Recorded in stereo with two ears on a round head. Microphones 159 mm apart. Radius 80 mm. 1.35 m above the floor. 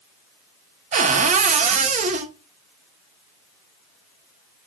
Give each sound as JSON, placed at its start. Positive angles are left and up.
{"t": 0.9, "sound": "a cupboard door", "side_deg": -40, "distance_m": 0.7}